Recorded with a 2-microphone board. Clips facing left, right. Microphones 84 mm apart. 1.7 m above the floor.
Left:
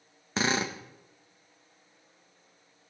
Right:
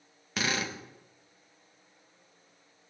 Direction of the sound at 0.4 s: 25° left (ahead or behind).